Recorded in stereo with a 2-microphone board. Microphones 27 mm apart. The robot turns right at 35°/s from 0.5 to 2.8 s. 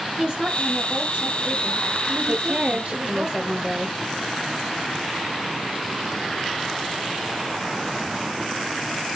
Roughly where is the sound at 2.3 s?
Right.